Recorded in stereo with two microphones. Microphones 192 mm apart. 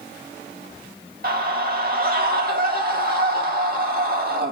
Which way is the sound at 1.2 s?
50° right (ahead or behind).